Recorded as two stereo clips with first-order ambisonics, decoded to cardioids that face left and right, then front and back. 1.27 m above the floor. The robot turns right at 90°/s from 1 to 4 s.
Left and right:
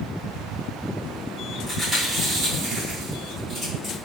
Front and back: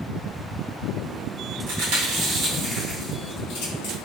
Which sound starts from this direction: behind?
Chewing, at 1.7 s.